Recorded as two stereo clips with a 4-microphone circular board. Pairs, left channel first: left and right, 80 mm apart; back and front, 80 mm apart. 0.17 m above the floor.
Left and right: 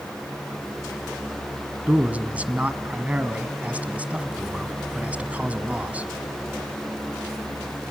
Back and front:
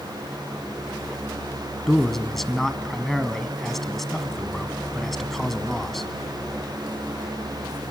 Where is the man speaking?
100° right, 1.1 m.